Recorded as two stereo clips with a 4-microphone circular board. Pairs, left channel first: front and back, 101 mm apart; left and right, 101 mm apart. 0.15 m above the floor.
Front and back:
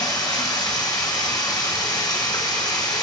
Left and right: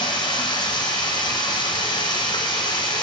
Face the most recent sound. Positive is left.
turn(degrees=50)